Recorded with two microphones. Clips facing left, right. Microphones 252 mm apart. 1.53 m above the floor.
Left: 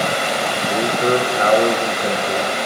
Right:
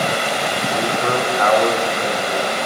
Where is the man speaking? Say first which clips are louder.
Left 4 dB; 30° left (ahead or behind), 1.2 m.